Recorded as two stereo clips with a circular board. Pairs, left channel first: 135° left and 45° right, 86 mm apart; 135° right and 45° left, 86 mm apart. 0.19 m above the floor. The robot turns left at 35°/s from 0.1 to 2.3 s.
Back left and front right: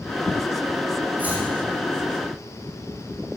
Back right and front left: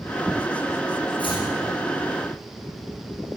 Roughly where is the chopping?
Behind right.